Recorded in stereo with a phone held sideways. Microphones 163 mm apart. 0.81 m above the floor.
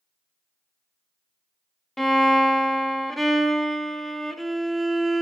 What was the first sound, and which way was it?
A violin, centre (ahead or behind).